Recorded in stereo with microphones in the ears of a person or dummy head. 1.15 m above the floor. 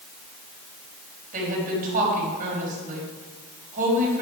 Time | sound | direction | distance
1.3 | a woman speaking | 40° right (ahead or behind) | 5.5 m